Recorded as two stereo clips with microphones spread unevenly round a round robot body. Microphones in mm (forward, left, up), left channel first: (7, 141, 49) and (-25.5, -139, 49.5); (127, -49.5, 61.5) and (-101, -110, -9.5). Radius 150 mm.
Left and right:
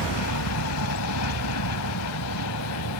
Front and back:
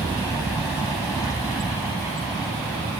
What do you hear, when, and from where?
0.0 s an aircraft: 100° left